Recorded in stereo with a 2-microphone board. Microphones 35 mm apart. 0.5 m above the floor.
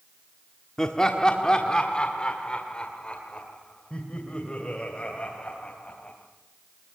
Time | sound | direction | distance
0.8 | laughter | 20° left (ahead or behind) | 1.3 m